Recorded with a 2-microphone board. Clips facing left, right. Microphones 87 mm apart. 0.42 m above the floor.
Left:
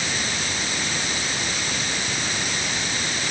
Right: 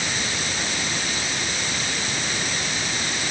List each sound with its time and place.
Only background noise.